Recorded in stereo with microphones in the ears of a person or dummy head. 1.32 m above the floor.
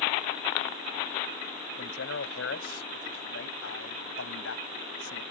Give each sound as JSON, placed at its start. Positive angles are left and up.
{"t": 1.8, "sound": "a man speaking", "side_deg": 80}